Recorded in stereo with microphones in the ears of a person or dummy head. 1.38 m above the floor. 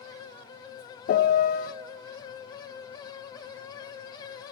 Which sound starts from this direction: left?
A piano, at 1.1 s.